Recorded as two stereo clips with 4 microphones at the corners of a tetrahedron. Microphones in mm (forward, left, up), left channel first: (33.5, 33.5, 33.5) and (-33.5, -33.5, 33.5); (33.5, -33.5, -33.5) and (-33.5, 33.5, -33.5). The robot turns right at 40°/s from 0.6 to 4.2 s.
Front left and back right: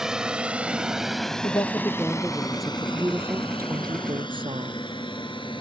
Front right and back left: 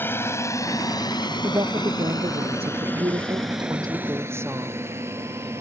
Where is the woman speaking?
90° left; by 4.9 s 160° right.